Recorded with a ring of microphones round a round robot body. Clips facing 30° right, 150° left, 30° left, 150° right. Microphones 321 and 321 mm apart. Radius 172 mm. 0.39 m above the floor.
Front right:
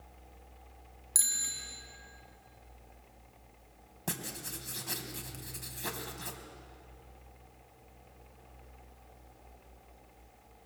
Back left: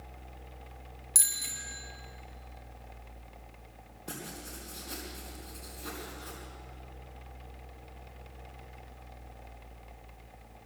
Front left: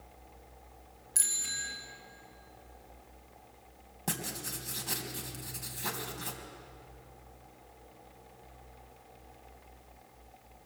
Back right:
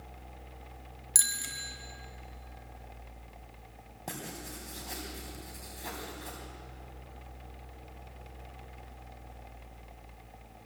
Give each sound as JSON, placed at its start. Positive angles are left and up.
{"t": 1.1, "sound": "a bicycle bell", "azimuth_deg": -120, "distance_m": 4.5}
{"t": 4.1, "sound": "writing", "azimuth_deg": -35, "distance_m": 3.5}